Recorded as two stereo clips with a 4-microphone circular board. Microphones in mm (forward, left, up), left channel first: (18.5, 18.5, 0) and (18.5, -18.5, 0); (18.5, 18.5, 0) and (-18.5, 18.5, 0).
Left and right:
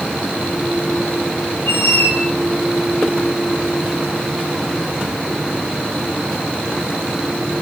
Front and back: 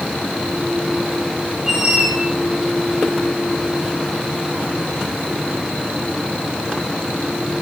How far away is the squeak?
About 4 m.